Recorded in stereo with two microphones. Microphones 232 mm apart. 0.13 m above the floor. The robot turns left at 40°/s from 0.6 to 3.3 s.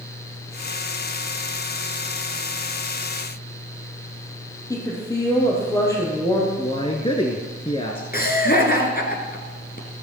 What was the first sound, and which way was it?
A woman speaking, 15° left (ahead or behind).